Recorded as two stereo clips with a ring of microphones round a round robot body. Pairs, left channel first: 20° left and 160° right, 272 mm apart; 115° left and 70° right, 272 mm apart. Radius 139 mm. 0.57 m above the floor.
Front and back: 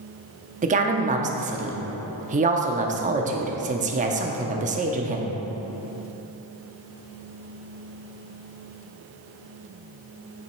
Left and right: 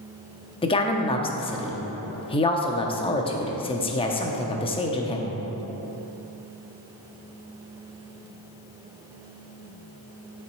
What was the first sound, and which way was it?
A woman speaking, 165° left.